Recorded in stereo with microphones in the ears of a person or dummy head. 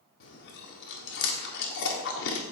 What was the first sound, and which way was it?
Chewing, 60° left (ahead or behind).